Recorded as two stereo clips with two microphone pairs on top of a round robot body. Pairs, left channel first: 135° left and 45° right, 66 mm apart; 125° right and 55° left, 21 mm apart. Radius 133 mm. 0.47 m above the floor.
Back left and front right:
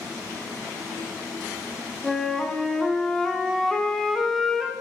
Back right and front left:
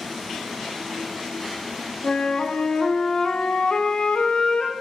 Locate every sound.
2.0 s a flute: 140° right, 1.3 m